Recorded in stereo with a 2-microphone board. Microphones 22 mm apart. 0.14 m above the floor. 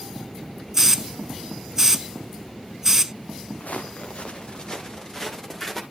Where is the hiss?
20° right (ahead or behind), 0.5 m.